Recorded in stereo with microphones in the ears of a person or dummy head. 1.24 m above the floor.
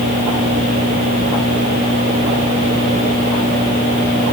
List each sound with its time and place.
Only background noise.